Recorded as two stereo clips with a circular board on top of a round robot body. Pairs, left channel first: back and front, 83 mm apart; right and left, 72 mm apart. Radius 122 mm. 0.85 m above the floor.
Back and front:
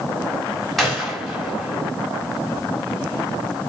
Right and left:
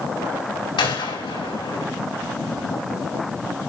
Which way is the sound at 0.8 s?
90° right.